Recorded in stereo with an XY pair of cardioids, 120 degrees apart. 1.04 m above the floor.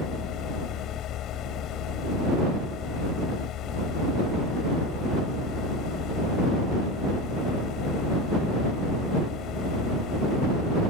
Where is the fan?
65° left.